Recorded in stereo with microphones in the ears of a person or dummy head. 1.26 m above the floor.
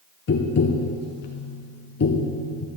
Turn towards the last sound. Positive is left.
turn(degrees=50)  # may be behind; listen again after turning